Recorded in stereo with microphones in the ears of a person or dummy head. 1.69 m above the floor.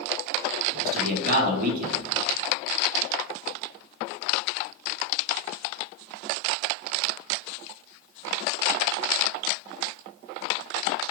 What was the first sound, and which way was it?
A man speaking, 55° right (ahead or behind).